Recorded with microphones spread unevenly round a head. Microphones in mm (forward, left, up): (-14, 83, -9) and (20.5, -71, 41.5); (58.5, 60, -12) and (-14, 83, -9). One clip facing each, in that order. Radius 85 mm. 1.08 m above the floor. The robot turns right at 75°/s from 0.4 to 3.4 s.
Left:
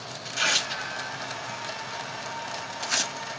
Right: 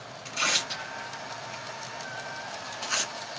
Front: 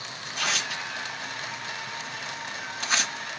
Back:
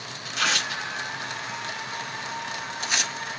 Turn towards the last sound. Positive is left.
turn(degrees=60)